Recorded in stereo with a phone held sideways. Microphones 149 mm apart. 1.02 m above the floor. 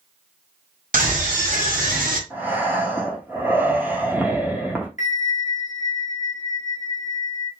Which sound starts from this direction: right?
A scream, at 0.9 s.